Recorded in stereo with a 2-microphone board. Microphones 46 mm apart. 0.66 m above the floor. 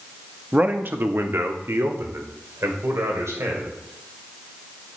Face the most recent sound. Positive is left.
turn(degrees=-80)